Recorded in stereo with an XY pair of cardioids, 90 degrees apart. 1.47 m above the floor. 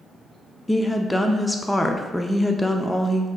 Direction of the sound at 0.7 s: 10° left.